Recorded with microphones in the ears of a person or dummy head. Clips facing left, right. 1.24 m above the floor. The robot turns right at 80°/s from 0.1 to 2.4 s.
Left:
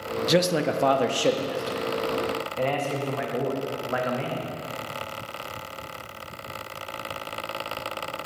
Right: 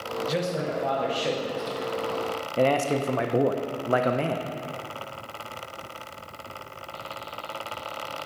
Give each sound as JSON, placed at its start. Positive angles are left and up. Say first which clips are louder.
{"t": 0.3, "sound": "a man speaking", "louder": "left 6 dB", "azimuth_deg": 55, "distance_m": 0.6}